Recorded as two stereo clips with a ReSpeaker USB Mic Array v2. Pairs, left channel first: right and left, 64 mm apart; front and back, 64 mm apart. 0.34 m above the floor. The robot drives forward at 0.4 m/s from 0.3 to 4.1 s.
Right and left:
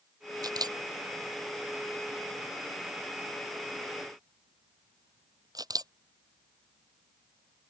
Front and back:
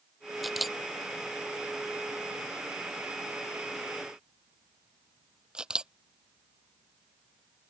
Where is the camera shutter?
90° left; by 7.7 s 105° left.